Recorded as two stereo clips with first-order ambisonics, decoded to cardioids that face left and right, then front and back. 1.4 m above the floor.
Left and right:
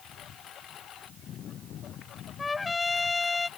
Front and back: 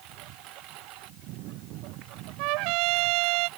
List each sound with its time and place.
0.0 s a lawn mower: 145° left
2.4 s a trumpet: 165° left